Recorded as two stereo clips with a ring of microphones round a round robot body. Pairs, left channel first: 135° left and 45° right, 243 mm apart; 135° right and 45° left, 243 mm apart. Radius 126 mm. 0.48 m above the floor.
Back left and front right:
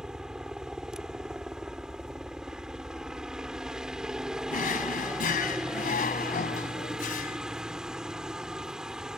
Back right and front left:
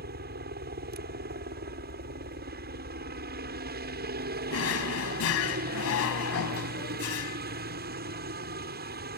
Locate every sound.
0.0 s a helicopter: 40° left
4.5 s a drawer: 165° right